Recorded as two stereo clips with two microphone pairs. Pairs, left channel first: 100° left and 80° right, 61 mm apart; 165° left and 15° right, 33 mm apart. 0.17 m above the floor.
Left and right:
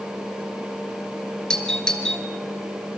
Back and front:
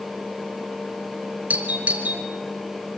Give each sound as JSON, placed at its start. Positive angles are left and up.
{"t": 1.5, "sound": "a doorbell", "azimuth_deg": 20, "distance_m": 3.5}